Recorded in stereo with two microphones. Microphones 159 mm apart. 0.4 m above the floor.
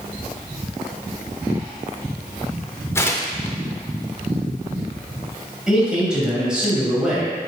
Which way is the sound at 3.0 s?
15° left (ahead or behind).